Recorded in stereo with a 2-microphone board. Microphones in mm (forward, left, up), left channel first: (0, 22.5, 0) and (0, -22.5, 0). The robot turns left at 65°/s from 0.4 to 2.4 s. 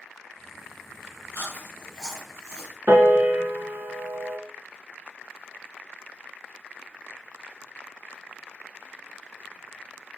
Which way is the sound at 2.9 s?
55° right (ahead or behind).